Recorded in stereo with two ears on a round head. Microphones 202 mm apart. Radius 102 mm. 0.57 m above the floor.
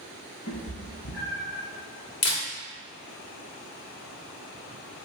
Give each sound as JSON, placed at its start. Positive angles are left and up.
{"t": 0.5, "sound": "a cat meowing", "side_deg": 50, "distance_m": 1.0}
{"t": 2.2, "sound": "a camera shutter", "side_deg": 75, "distance_m": 2.0}